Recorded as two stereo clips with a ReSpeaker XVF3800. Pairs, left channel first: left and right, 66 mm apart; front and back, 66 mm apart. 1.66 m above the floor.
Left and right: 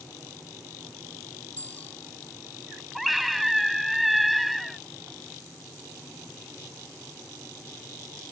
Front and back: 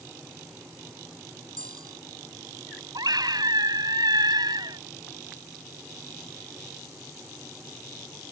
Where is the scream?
Straight behind.